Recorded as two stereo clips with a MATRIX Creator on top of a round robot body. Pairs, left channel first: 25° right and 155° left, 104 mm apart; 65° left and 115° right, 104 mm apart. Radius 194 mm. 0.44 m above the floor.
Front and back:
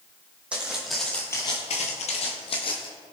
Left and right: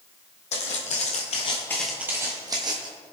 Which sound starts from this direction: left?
Footsteps, at 0.5 s.